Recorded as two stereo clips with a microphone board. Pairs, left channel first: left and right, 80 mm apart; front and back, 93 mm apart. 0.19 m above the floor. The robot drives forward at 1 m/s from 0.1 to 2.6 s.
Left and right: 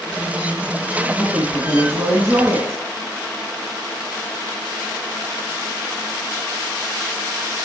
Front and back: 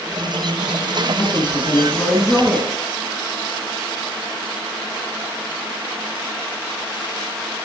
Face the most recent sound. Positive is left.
turn(degrees=-100)